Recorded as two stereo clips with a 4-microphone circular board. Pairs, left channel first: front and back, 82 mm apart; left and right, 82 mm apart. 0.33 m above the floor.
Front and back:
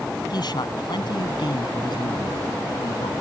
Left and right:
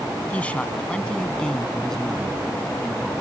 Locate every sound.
0.3 s a man speaking: 20° left; by 3.1 s straight ahead